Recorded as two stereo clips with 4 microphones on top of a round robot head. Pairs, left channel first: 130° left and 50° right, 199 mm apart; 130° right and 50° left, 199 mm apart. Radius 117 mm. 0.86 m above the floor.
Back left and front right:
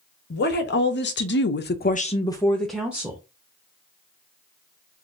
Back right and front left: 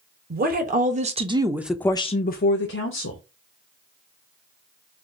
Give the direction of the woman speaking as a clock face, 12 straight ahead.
9 o'clock.